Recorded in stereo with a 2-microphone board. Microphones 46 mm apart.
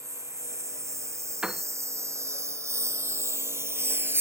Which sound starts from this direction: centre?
A piano, at 1.4 s.